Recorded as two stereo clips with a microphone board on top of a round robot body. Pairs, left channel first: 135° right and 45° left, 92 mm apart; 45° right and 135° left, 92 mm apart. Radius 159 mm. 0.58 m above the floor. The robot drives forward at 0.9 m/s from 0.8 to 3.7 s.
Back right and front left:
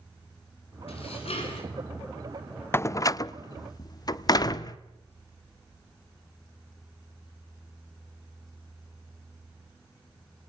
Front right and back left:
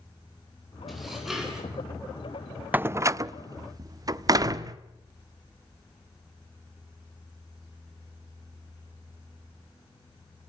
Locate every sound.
0.9 s dishes clattering: 135° right, 5.5 m; by 1.7 s 140° right, 6 m
2.7 s a door slam: 170° right, 0.5 m; by 4.8 s straight behind, 1.2 m